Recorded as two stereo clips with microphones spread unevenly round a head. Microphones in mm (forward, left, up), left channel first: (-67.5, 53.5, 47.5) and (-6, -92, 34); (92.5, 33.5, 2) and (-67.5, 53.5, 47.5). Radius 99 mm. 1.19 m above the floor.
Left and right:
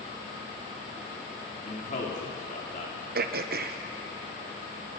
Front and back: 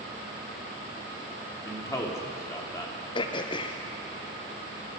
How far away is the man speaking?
About 3.5 m.